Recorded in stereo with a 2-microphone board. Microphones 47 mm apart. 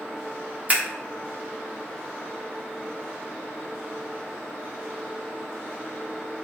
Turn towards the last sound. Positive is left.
turn(degrees=-30)  # may be behind; listen again after turning